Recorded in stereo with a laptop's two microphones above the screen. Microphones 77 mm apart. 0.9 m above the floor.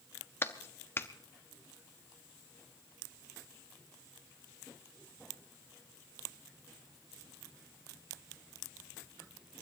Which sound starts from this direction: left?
A clap, at 0.4 s.